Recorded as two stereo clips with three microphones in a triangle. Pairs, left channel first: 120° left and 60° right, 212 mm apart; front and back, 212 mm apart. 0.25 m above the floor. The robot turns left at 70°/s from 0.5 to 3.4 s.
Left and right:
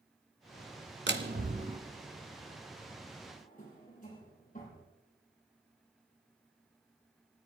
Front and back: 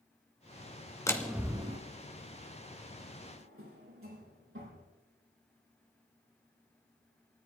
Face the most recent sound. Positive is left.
turn(degrees=170)